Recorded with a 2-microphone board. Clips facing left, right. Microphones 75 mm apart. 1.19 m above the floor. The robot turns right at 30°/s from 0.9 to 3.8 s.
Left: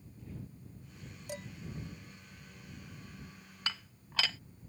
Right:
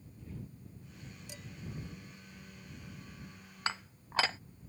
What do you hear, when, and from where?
1.3 s dishes clattering: 50° left (ahead or behind); by 1.5 s 45° left (ahead or behind)
3.7 s dishes clattering: 30° right (ahead or behind); by 4.4 s 35° right (ahead or behind)